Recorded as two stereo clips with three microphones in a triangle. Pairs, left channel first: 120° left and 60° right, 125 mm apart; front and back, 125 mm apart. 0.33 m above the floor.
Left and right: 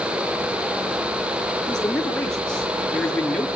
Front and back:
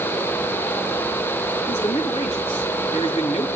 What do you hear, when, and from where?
1.7 s a man speaking: 35° left, 5.5 m